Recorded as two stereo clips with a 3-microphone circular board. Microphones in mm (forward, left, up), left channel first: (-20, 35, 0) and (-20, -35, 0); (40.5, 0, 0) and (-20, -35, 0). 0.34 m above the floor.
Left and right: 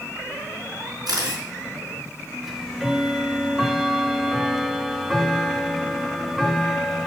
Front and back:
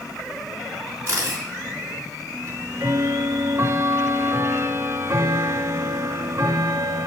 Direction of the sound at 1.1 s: 105° right.